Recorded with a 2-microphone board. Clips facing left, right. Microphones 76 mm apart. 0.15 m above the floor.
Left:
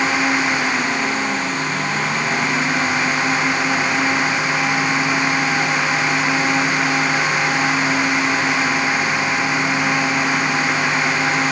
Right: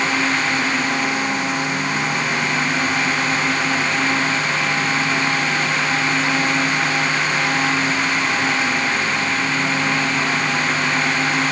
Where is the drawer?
I don't hear a drawer.